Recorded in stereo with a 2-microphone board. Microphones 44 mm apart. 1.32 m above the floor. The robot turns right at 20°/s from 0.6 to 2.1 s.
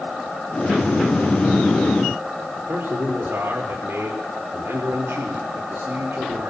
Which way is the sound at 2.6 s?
65° right (ahead or behind).